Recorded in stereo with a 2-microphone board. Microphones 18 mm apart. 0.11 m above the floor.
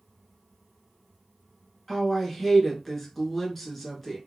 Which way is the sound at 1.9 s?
15° left (ahead or behind).